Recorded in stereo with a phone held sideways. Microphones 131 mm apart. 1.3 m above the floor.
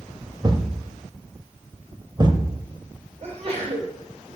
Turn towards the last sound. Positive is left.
turn(degrees=-50)  # may be behind; listen again after turning